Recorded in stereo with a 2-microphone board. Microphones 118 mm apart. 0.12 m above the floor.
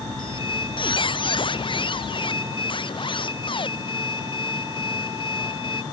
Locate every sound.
0.2 s a squeak: 45° left (ahead or behind)